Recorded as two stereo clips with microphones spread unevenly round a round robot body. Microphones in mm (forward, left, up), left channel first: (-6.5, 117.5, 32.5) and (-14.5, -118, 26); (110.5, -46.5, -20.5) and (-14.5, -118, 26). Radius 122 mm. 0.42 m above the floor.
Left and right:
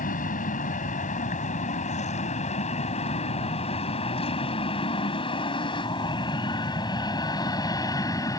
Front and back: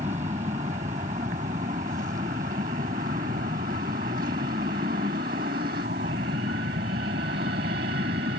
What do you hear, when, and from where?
0.0 s an aircraft: 145° left; by 8.4 s 165° left